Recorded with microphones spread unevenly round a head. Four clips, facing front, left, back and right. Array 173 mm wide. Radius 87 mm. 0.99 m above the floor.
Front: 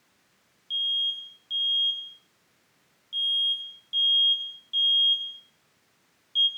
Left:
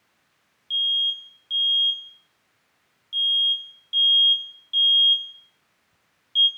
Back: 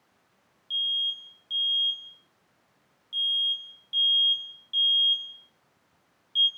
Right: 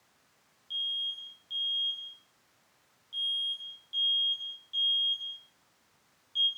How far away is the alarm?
About 4.5 m.